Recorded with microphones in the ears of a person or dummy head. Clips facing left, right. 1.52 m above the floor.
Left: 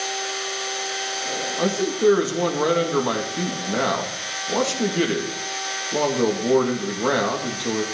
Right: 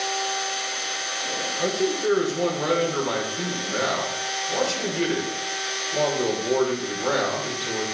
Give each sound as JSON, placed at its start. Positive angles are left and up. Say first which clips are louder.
{"t": 1.6, "sound": "a man speaking", "louder": "left 4 dB", "side_deg": 80, "distance_m": 2.5}